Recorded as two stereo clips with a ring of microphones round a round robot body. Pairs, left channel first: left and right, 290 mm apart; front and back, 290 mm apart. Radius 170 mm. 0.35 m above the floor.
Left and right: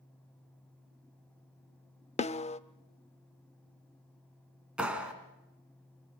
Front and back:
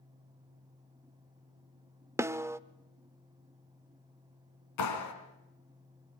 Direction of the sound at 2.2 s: 115° left.